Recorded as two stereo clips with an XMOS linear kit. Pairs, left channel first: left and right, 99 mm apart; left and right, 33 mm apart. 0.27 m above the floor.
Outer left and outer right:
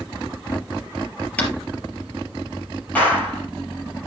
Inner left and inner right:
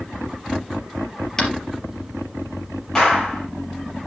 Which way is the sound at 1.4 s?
15° left (ahead or behind).